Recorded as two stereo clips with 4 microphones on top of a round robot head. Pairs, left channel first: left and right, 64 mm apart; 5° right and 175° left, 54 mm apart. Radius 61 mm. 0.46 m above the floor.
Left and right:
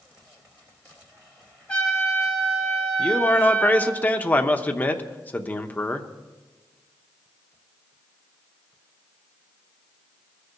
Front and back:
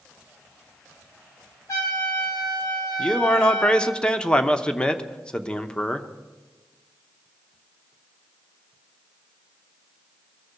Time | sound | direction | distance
1.7 | a trumpet | 20° left | 3.5 m
3.0 | a man speaking | 55° left | 0.8 m